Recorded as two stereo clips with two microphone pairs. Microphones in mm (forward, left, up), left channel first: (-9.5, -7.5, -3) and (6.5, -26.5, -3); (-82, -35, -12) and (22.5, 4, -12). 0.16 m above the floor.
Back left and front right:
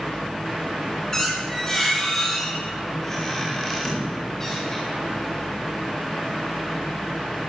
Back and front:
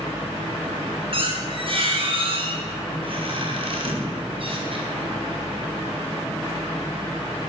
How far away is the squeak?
About 8.5 m.